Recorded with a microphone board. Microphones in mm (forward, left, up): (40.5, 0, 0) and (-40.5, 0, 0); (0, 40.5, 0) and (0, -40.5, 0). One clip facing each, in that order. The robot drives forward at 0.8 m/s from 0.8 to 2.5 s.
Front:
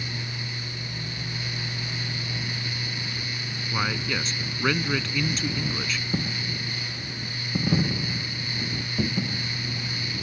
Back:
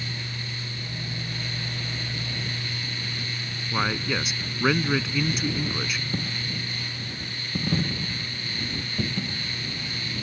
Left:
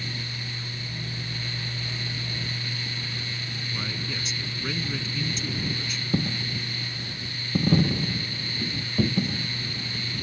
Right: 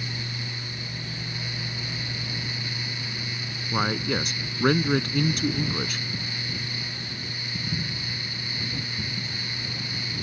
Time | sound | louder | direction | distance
3.7 | a man speaking | back 2 dB, right 11 dB | 100° right | ?
6.1 | a dropped coin | front 2 dB, left 6 dB | 80° left | ?